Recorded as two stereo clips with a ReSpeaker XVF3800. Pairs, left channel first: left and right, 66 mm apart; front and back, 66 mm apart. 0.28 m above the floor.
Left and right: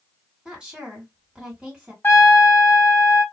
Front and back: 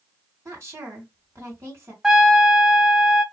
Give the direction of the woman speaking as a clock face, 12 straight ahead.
5 o'clock.